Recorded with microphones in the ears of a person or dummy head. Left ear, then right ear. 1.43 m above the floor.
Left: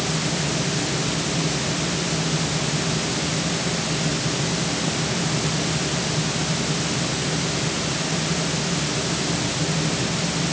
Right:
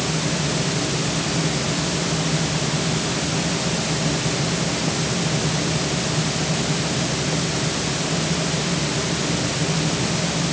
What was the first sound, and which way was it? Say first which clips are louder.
A fan: right 1 dB; 5° right (ahead or behind).